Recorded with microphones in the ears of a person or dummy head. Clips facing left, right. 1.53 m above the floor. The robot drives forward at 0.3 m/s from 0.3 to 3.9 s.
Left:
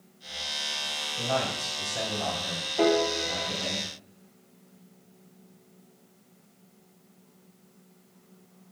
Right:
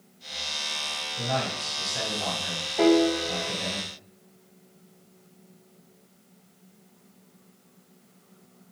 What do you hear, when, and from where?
1.2 s a man speaking: 20° right (ahead or behind), 5 m; by 3.8 s 15° right (ahead or behind), 5.5 m
2.8 s a piano: 5° right (ahead or behind), 1.9 m